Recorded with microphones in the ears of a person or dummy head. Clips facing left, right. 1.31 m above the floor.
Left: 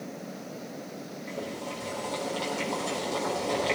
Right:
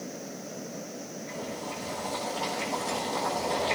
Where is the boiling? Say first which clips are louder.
Left 2 dB; 70° left (ahead or behind), 5 m.